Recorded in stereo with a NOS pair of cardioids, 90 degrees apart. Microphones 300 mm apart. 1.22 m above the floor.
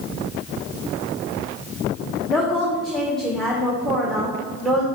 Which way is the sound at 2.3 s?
Straight ahead.